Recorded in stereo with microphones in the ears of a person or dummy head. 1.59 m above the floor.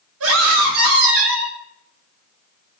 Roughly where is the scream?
Right.